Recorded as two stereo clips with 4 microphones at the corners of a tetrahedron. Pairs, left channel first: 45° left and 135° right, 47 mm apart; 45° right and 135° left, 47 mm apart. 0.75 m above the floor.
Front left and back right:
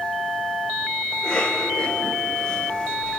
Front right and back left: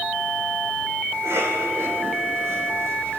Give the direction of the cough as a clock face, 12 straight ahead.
8 o'clock.